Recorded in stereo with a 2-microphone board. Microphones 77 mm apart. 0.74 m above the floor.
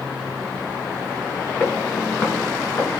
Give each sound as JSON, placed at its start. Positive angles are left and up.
{"t": 1.6, "sound": "footsteps", "side_deg": 25, "distance_m": 4.5}